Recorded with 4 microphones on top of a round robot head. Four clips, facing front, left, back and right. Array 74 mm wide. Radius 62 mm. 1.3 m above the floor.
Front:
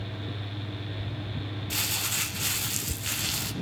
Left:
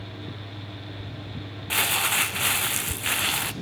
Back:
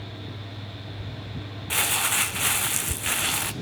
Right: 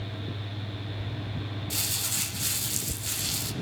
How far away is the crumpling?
About 0.5 m.